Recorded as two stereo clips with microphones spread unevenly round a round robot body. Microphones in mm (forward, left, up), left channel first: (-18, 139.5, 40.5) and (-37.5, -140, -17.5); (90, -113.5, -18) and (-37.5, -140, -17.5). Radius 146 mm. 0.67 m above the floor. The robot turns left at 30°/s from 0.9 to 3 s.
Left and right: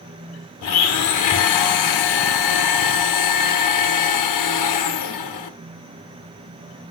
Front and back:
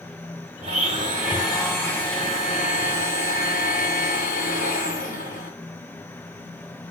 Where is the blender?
120° left, 0.8 m; by 5.6 s 60° left, 0.8 m.